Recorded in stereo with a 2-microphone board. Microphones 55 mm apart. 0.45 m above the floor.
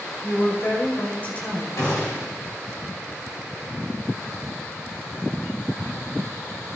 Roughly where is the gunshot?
Left.